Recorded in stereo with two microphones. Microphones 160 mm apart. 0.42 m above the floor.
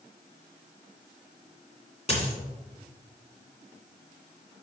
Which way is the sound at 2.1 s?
40° left (ahead or behind).